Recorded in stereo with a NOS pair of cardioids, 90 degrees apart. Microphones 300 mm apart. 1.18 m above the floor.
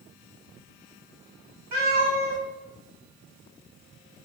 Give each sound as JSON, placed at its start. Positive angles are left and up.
{"t": 1.7, "sound": "a cat meowing", "azimuth_deg": -65, "distance_m": 1.8}